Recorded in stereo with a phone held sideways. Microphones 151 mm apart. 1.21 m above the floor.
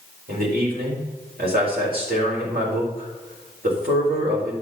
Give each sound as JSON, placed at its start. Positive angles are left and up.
{"t": 0.3, "sound": "a man speaking", "side_deg": -80, "distance_m": 4.0}